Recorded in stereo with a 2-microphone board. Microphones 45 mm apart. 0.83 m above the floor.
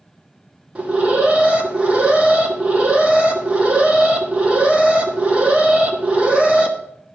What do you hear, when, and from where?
0.8 s an alarm: 25° right (ahead or behind), 1.5 m